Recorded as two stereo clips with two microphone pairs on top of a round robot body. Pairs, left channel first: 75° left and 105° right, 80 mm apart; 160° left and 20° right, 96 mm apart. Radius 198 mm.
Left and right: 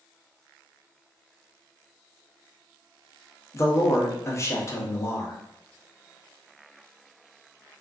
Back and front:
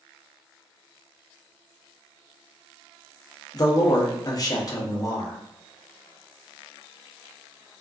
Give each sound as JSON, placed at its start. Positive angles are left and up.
{"t": 3.5, "sound": "a man speaking", "azimuth_deg": 115, "distance_m": 1.1}